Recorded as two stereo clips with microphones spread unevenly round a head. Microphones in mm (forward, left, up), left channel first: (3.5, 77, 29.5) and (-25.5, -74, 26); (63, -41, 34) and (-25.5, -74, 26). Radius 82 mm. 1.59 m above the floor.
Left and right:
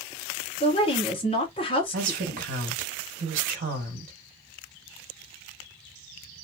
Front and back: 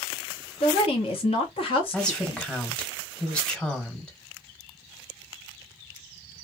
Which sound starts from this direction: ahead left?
A woman speaking, at 0.6 s.